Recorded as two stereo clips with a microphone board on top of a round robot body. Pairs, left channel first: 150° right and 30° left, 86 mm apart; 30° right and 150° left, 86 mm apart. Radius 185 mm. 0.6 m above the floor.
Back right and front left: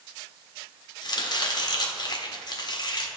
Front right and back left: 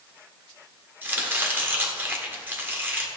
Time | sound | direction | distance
1.0 | chopping | 145° right | 1.4 m